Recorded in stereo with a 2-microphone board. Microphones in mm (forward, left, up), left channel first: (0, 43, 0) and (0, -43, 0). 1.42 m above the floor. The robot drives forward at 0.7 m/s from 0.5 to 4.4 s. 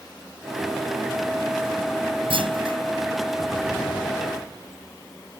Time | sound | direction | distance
2.3 | a clunk | 85° right | ?